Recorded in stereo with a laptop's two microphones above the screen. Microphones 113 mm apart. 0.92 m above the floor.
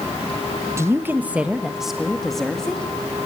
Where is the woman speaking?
25° right (ahead or behind), 0.9 m; by 2.9 s 5° left (ahead or behind), 1.9 m.